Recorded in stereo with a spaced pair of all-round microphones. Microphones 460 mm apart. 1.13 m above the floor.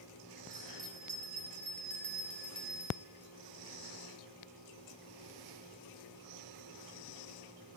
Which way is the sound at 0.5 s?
45° right (ahead or behind).